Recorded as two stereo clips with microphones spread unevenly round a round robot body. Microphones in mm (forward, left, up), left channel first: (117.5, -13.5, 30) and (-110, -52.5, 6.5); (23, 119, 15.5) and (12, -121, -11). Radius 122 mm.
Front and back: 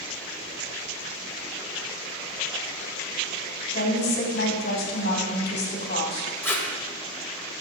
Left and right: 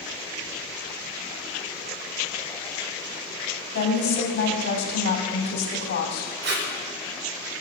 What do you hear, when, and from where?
3.7 s a woman speaking: 60° left, 2.5 m
6.4 s tape being pulled: 75° right, 1.7 m